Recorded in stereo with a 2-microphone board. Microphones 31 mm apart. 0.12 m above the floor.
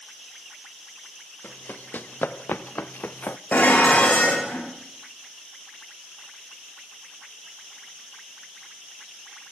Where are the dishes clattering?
60° left (ahead or behind), 5 m.